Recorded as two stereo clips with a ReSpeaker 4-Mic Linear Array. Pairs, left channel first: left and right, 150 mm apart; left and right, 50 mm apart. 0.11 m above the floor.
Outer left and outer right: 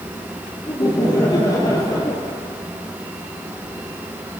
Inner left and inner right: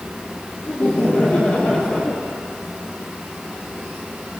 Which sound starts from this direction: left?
Laughter, at 0.7 s.